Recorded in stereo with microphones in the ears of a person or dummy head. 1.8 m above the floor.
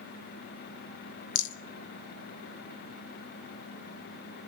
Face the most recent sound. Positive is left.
turn(degrees=65)  # may be behind; listen again after turning